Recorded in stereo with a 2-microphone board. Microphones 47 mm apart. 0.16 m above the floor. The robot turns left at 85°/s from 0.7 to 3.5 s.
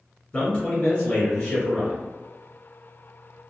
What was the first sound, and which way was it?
A man speaking, 20° left (ahead or behind).